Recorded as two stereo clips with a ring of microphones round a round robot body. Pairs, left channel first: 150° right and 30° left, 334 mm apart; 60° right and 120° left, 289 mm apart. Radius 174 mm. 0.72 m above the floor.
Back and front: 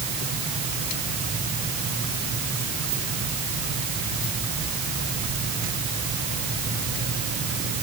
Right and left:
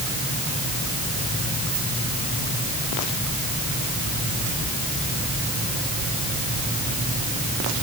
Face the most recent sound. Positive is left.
No sound to turn to.